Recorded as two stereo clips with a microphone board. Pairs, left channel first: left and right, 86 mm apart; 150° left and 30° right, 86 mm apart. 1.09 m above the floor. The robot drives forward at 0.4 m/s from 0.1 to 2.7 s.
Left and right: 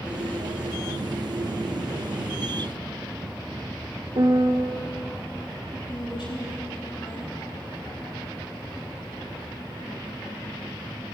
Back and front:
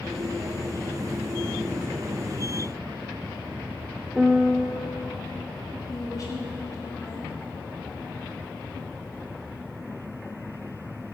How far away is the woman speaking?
About 3 m.